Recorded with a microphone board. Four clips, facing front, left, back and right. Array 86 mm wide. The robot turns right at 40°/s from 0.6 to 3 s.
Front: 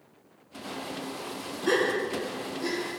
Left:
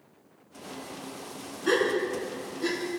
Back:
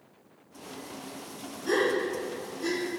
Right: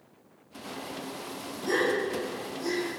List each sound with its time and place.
1.7 s a gasp: 60° left, 2.5 m; by 3.0 s 110° left, 2.5 m